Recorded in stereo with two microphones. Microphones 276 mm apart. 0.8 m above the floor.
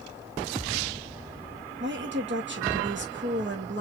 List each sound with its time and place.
1.8 s a woman speaking: 45° right (ahead or behind), 1.0 m